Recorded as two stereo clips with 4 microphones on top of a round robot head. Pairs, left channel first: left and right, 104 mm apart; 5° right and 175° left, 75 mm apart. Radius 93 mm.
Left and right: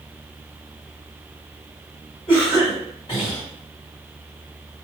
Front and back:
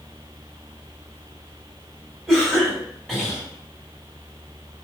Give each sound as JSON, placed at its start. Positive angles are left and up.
{"t": 2.3, "sound": "a cough", "azimuth_deg": 100, "distance_m": 2.0}